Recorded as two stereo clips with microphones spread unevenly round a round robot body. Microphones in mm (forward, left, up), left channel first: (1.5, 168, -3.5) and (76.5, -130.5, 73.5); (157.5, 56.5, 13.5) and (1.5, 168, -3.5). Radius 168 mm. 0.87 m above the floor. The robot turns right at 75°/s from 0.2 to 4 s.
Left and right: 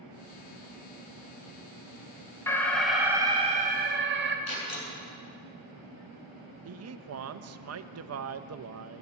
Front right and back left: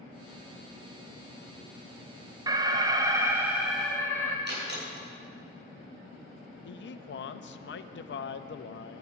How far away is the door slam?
About 8 m.